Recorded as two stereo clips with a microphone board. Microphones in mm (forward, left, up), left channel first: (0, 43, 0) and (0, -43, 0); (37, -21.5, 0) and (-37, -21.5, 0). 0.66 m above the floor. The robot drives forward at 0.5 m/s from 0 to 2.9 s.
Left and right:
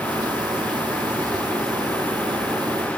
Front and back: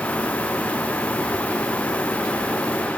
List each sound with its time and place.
Only background noise.